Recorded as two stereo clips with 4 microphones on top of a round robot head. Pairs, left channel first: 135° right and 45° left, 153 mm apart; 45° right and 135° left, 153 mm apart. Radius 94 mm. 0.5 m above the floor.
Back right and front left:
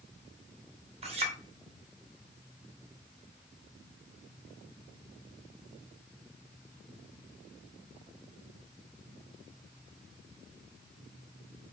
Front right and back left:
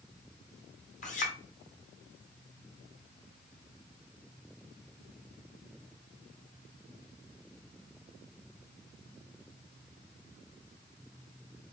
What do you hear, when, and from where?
1.0 s a clink: 5° right, 2 m